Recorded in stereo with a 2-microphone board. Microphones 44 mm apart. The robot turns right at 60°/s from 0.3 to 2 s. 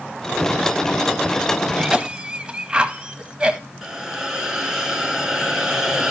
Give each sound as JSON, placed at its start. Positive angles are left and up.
{"t": 1.8, "sound": "a cough", "side_deg": -25, "distance_m": 1.0}
{"t": 3.8, "sound": "a hiss", "side_deg": -15, "distance_m": 1.8}